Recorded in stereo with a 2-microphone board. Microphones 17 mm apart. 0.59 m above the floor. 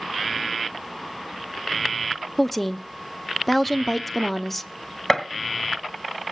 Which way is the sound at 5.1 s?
25° left (ahead or behind).